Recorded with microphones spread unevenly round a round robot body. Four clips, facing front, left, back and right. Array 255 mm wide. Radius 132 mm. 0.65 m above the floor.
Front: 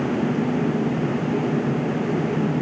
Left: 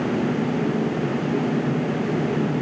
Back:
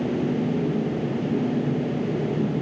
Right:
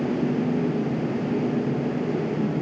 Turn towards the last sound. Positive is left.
No sound to turn to.